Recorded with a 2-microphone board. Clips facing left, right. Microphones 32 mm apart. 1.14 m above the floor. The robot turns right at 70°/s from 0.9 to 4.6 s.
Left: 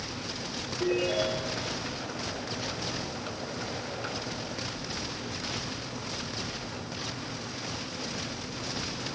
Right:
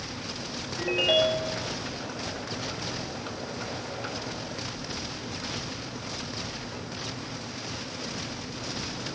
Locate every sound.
0.8 s a ringtone: 85° right, 6.5 m; by 1.6 s 35° right, 6.5 m